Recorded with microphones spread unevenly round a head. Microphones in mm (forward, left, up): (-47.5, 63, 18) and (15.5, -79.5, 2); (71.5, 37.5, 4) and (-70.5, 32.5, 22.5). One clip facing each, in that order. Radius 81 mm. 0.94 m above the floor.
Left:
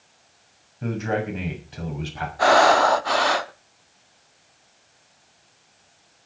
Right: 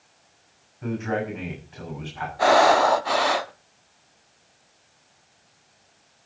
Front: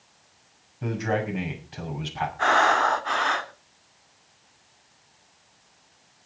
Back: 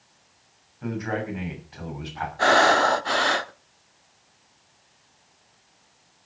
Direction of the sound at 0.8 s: 65° left.